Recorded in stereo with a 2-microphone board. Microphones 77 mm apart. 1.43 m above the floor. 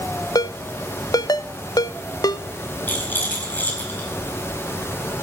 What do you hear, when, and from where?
0.3 s a ringtone: 55° left (ahead or behind), 0.6 m
2.9 s a rattle: 25° left (ahead or behind), 4.5 m